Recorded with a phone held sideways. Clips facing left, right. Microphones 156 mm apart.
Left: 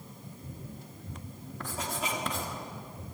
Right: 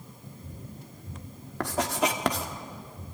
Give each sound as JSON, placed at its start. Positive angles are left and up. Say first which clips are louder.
{"t": 1.6, "sound": "writing", "louder": "right 9 dB", "side_deg": -65, "distance_m": 2.0}